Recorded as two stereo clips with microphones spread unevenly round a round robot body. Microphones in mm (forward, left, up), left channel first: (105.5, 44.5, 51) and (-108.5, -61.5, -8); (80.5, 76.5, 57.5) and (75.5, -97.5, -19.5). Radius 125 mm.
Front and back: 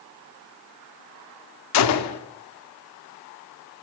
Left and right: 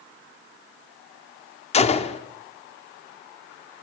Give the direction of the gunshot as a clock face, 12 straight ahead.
11 o'clock.